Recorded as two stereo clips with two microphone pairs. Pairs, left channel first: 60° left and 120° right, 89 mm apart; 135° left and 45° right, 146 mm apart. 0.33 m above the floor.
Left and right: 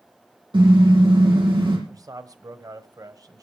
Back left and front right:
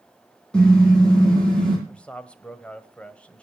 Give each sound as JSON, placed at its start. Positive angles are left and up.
{"t": 0.5, "sound": "a car horn", "azimuth_deg": -140, "distance_m": 7.0}
{"t": 1.9, "sound": "a man speaking", "azimuth_deg": -150, "distance_m": 1.3}